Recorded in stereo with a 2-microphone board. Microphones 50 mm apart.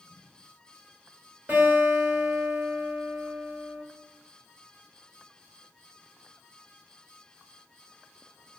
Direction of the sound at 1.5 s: 35° right (ahead or behind).